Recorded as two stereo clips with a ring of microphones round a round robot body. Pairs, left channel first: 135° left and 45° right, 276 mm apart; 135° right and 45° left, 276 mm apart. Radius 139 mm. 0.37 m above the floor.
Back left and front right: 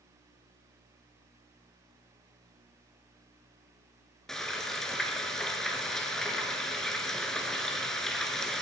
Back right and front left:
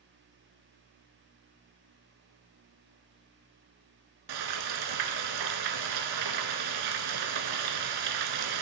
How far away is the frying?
About 1.2 m.